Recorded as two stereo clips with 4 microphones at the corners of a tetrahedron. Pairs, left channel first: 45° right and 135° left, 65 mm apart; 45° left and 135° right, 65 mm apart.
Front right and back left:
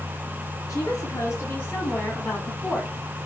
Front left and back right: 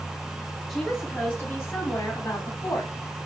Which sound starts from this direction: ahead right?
A woman speaking, at 0.7 s.